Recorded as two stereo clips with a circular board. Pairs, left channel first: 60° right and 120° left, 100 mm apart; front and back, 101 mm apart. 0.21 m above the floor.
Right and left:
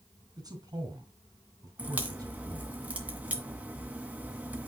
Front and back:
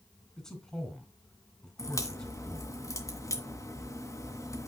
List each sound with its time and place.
0.4 s a man speaking: 85° left, 2.5 m
1.8 s a crack: 50° left, 1.9 m